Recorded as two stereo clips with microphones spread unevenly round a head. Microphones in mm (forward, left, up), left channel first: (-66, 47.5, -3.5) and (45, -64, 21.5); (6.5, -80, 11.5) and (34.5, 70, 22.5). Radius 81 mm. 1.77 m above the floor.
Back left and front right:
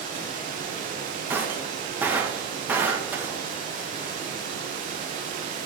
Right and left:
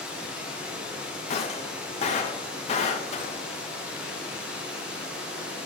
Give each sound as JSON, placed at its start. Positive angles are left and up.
{"t": 0.0, "sound": "running water", "azimuth_deg": -5, "distance_m": 1.8}
{"t": 1.3, "sound": "breaking glass", "azimuth_deg": -100, "distance_m": 1.0}